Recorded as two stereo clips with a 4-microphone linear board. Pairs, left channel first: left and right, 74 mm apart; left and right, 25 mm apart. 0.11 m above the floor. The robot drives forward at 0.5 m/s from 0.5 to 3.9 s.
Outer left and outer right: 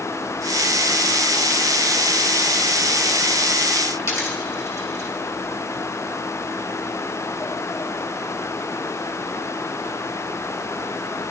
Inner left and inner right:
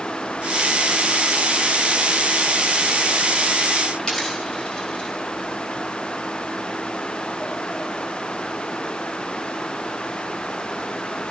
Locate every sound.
4.0 s a dropped coin: 40° left (ahead or behind), 7.5 m